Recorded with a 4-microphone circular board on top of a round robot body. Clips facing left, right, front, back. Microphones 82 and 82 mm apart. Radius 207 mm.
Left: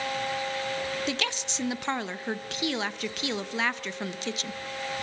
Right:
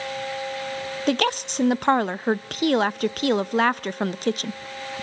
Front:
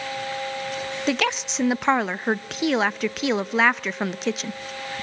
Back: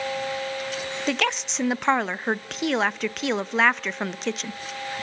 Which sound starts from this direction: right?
A woman speaking, at 1.1 s.